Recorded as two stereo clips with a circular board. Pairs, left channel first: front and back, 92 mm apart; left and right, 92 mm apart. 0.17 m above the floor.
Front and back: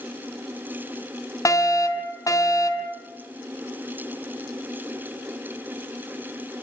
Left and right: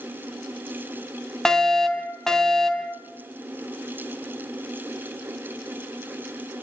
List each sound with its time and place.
1.4 s a fire alarm: 10° left, 3 m